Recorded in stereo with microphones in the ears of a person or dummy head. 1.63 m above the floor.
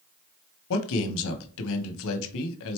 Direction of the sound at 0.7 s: 75° left (ahead or behind).